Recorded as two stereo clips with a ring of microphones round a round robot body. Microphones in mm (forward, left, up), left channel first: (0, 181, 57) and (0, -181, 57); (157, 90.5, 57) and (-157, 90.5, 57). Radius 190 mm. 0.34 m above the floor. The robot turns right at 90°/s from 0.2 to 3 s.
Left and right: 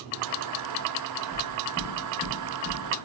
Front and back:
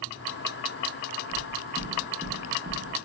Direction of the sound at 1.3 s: 20° left.